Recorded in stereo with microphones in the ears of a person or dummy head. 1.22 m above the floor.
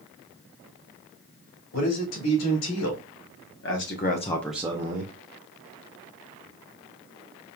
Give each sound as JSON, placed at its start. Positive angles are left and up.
{"t": 1.7, "sound": "a man speaking", "side_deg": 80, "distance_m": 3.0}